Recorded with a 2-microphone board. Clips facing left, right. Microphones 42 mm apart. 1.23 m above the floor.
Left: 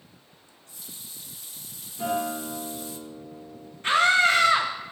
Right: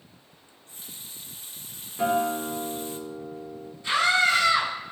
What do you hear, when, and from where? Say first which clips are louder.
0.5 s a running tap: right 1 dB; 35° right (ahead or behind), 0.8 m
2.0 s a guitar: right 4 dB; 50° right (ahead or behind), 2.5 m
3.8 s a scream: left 2 dB; 50° left (ahead or behind), 2 m